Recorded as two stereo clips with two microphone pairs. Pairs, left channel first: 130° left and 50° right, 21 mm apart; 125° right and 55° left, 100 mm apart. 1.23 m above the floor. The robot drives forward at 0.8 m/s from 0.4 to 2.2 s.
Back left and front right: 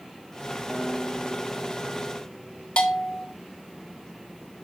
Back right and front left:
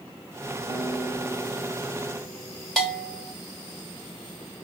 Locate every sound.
0.7 s a guitar: 125° right, 4.5 m; by 3.3 s 135° right, 5 m
2.8 s a bell: 155° left, 1.5 m